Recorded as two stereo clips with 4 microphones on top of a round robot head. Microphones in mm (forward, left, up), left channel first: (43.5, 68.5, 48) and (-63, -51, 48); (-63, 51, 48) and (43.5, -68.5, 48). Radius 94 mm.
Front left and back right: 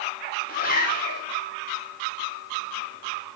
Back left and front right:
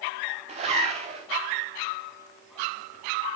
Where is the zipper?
10° left, 5 m.